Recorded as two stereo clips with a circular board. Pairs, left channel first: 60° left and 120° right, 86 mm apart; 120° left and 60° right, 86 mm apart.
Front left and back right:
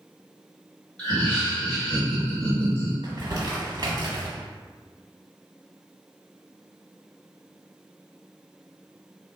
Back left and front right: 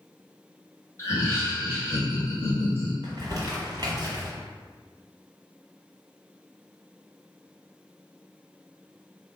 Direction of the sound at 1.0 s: 130° left.